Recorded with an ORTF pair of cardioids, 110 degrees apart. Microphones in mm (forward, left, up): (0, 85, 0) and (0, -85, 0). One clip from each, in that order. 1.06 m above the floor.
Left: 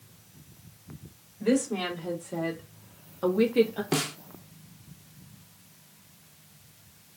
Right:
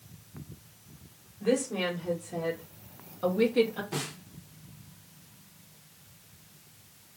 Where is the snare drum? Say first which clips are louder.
Left 7 dB; 70° left, 0.9 m.